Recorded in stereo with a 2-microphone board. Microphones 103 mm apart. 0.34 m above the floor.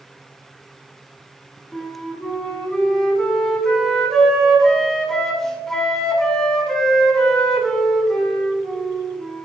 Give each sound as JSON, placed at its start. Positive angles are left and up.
{"t": 1.7, "sound": "a flute", "side_deg": 5, "distance_m": 1.2}